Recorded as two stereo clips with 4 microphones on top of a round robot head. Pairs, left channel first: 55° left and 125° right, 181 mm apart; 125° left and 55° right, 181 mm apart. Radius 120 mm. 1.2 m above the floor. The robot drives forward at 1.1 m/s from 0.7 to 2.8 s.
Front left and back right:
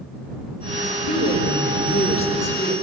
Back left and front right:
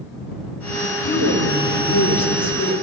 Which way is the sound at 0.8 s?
95° left.